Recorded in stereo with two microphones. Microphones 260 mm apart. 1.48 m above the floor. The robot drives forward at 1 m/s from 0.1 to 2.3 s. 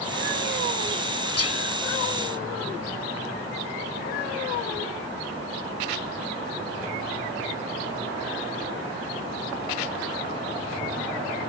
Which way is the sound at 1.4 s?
65° left (ahead or behind).